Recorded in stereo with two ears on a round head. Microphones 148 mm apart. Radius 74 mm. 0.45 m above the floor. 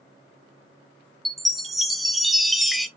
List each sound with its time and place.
1.2 s a chime: centre (ahead or behind), 0.6 m